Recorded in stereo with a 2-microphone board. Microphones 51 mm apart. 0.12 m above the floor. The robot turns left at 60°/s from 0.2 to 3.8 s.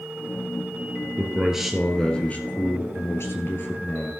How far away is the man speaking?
About 1.8 m.